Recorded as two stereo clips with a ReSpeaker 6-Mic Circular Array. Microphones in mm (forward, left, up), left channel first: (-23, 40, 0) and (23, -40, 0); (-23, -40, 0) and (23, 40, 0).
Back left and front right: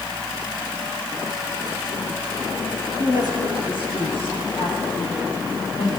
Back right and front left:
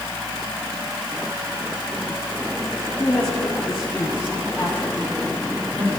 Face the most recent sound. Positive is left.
turn(degrees=120)